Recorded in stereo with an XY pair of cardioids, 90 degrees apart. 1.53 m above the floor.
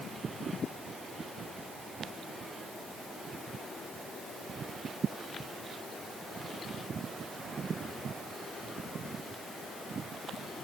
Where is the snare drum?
I don't hear a snare drum.